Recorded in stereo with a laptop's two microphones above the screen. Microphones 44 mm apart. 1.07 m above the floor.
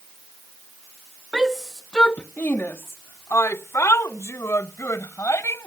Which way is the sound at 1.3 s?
20° right (ahead or behind).